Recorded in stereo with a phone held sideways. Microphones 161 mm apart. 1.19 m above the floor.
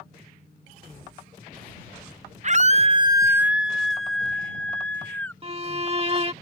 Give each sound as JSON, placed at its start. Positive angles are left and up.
{"t": 2.4, "sound": "a scream", "side_deg": -45}
{"t": 5.4, "sound": "a violin", "side_deg": -35}